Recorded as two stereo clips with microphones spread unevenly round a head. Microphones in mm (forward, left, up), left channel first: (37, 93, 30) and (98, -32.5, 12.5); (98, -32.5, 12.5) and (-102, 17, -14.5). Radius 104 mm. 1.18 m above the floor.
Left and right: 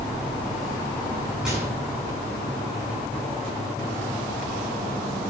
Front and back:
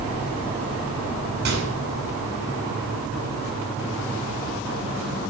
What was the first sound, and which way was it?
A microwave, 150° right.